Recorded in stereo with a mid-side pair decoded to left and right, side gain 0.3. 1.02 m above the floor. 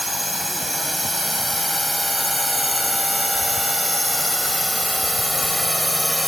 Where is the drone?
10° left; by 6.3 s 15° left.